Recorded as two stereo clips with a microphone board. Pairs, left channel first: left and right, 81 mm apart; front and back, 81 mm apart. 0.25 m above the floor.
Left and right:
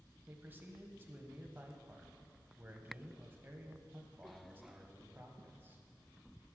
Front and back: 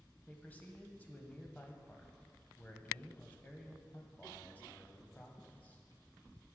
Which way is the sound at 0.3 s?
50° right.